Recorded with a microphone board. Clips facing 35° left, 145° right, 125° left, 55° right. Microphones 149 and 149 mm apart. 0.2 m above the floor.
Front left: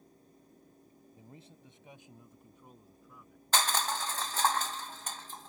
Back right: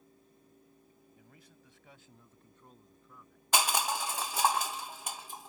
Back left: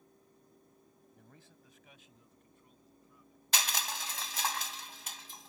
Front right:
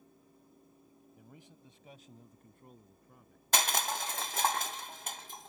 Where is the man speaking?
25° left; by 3.4 s 50° right.